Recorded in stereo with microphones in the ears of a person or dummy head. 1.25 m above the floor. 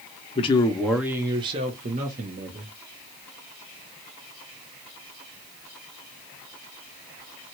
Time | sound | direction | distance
0.3 | a man speaking | 35° left (ahead or behind) | 0.7 m